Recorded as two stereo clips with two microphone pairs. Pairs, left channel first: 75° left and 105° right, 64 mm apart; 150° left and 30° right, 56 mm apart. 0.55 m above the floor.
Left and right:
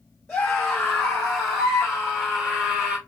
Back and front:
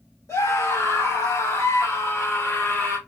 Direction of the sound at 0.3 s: 155° left.